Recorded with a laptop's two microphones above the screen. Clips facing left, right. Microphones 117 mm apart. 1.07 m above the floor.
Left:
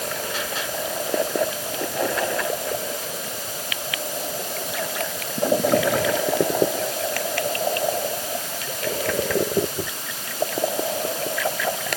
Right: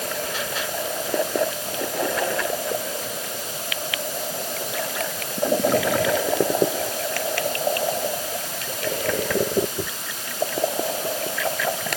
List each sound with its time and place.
Only background noise.